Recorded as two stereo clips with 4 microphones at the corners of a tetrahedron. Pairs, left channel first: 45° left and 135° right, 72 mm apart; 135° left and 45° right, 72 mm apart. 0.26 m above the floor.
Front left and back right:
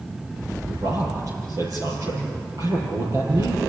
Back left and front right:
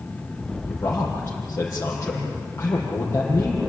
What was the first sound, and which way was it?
A man speaking, 165° right.